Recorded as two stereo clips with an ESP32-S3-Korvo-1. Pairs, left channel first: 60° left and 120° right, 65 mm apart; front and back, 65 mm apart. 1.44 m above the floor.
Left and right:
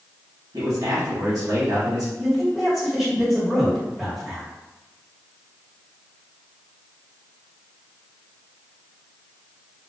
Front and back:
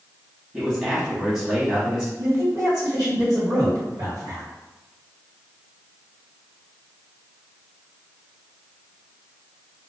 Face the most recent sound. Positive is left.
turn(degrees=155)